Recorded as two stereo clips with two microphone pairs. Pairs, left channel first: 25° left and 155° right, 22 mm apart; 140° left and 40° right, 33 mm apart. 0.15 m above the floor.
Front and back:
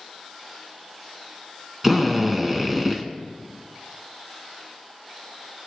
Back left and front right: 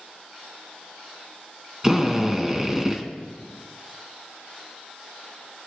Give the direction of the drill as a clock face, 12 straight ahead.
3 o'clock.